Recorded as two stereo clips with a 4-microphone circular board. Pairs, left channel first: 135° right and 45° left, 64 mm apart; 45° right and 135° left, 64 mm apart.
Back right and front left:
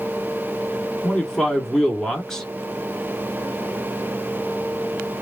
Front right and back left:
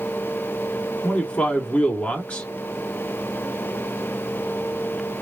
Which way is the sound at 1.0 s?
70° right.